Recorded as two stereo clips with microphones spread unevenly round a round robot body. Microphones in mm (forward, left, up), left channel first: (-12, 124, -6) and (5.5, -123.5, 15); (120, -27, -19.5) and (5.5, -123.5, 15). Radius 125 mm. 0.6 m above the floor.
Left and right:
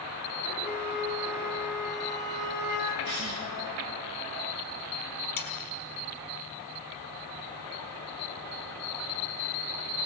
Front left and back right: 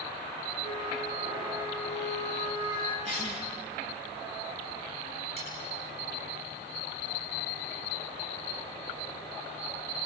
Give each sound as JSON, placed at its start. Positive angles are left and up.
{"t": 0.6, "sound": "a flute", "azimuth_deg": 150, "distance_m": 4.0}
{"t": 3.0, "sound": "a cough", "azimuth_deg": -95, "distance_m": 6.5}
{"t": 5.4, "sound": "cutlery clinking", "azimuth_deg": 150, "distance_m": 3.5}